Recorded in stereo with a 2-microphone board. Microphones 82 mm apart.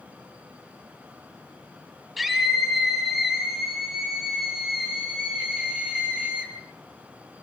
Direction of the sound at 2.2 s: Centre (ahead or behind).